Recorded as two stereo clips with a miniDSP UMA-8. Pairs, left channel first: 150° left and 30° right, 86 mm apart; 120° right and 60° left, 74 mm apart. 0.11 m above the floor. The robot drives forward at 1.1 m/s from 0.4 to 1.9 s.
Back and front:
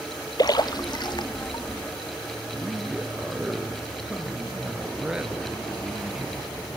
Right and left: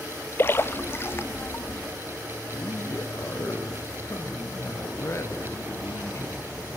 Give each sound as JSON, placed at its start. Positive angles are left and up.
{"t": 0.4, "sound": "a splash", "azimuth_deg": -175, "distance_m": 0.6}
{"t": 2.5, "sound": "a man speaking", "azimuth_deg": -110, "distance_m": 2.0}